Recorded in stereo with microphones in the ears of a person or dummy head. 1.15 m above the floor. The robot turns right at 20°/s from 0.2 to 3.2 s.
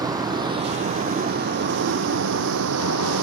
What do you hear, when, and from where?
0.0 s a vehicle: 15° right (ahead or behind); by 3.2 s 75° right (ahead or behind)